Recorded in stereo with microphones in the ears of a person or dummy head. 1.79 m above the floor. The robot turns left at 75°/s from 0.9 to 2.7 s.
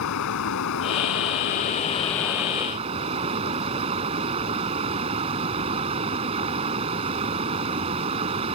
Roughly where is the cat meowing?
No cat meowing in this recording.